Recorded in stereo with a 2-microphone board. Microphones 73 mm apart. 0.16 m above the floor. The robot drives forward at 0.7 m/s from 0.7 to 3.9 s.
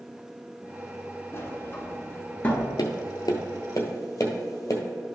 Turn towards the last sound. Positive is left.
turn(degrees=45)  # may be behind; listen again after turning